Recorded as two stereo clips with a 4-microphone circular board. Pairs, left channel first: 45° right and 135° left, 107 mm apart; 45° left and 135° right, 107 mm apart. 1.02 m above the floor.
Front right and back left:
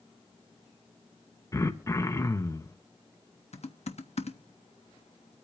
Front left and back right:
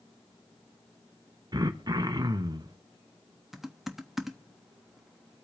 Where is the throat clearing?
100° right, 1.0 m.